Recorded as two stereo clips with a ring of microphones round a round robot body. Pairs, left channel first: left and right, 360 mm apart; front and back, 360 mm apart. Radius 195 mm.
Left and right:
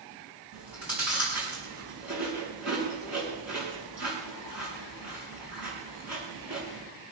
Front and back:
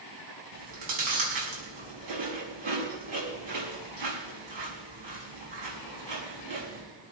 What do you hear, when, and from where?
0.5 s chewing: 175° right, 5.5 m